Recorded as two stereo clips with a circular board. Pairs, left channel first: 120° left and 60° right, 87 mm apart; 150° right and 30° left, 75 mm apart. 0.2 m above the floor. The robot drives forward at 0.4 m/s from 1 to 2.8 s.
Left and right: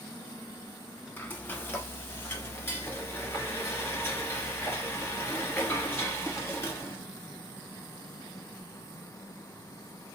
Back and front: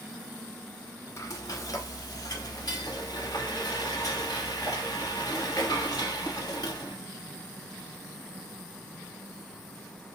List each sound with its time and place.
1.2 s frying: 175° right, 0.7 m; by 7.0 s straight behind, 1.3 m